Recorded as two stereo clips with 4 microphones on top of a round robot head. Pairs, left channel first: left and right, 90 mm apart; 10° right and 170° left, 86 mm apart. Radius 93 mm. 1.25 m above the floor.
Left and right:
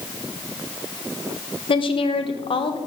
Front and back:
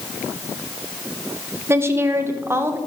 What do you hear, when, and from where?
1.7 s a woman speaking: 110° left, 1.4 m